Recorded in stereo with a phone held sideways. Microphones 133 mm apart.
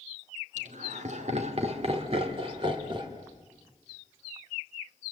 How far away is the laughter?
About 2.5 m.